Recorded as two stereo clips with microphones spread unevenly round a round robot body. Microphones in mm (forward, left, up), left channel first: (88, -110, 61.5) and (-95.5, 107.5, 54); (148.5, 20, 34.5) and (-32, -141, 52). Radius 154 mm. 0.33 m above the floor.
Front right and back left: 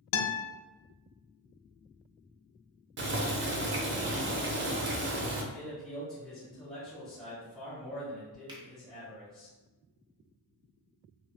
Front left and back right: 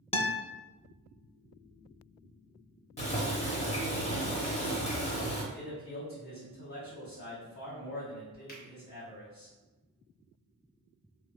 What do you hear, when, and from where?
0.1 s a guitar: 30° right, 0.5 m
3.0 s boiling: 95° left, 0.6 m
5.5 s a man speaking: 40° left, 1.5 m
8.5 s a finger snap: 65° left, 0.9 m